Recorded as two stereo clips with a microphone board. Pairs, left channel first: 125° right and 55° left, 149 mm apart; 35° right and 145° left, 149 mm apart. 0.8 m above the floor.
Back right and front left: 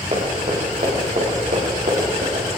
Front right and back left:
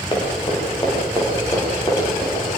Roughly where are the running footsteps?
Ahead.